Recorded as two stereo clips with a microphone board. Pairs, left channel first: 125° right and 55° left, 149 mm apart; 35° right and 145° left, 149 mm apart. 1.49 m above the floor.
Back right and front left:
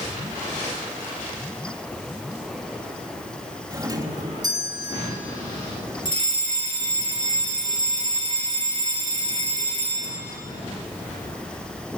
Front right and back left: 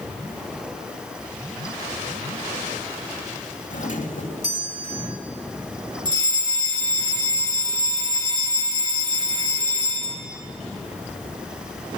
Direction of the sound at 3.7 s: 5° right.